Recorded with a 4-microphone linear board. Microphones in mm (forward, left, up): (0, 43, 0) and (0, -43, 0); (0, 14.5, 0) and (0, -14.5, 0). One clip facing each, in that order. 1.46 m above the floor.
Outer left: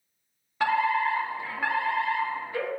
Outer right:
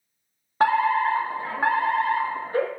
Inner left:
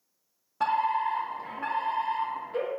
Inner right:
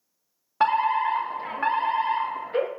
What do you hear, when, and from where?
0.6 s a fire alarm: 40° right (ahead or behind), 1.0 m